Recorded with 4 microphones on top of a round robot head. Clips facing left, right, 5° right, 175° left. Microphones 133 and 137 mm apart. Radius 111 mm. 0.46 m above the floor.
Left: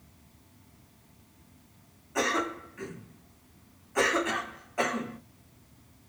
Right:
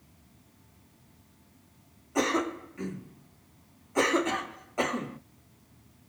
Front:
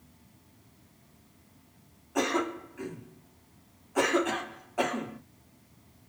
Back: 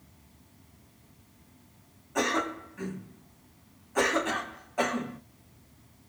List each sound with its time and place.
2.1 s a cough: 80° right, 1.3 m